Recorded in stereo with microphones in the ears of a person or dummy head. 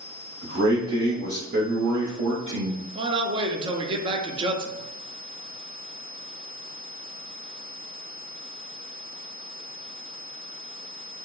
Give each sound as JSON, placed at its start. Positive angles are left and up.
{"t": 0.4, "sound": "a man speaking", "side_deg": -75, "distance_m": 1.8}
{"t": 3.0, "sound": "a man speaking", "side_deg": -25, "distance_m": 0.5}